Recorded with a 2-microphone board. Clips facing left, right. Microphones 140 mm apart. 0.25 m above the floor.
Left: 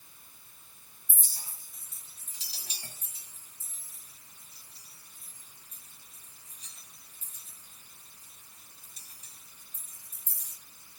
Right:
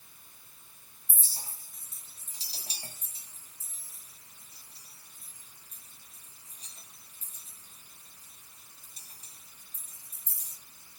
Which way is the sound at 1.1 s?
30° right (ahead or behind).